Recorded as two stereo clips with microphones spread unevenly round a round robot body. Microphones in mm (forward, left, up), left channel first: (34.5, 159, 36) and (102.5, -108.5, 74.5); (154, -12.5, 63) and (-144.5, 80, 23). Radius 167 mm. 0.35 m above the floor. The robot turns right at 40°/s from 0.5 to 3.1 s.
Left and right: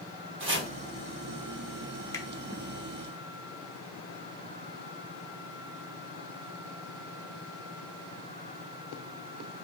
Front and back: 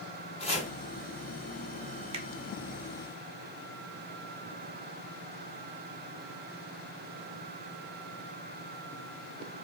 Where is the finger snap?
145° left, 0.6 m; by 2.3 s 150° left, 0.6 m.